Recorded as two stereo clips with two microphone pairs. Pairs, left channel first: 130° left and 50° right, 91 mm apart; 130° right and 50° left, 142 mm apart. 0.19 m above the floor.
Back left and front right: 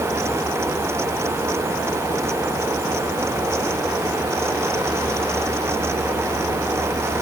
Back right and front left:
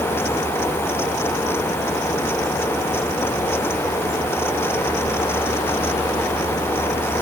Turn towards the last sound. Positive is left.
No sound to turn to.